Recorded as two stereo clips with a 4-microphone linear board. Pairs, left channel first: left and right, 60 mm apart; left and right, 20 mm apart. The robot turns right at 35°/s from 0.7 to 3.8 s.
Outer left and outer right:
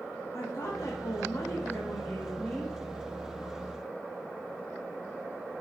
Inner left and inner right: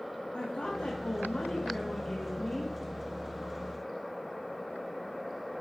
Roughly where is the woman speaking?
Left.